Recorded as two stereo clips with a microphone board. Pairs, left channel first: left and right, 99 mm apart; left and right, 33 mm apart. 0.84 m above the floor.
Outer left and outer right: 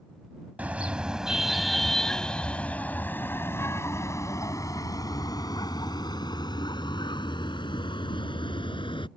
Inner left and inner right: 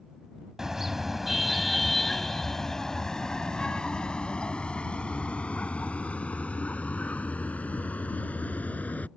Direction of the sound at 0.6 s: 15° right (ahead or behind).